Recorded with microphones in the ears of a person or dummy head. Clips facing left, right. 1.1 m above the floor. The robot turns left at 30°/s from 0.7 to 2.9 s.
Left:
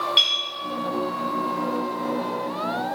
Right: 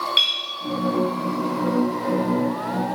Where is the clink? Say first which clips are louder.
Left 2 dB; centre (ahead or behind), 5.5 m.